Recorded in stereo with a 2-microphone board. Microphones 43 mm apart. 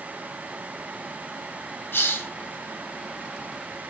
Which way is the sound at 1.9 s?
65° left (ahead or behind).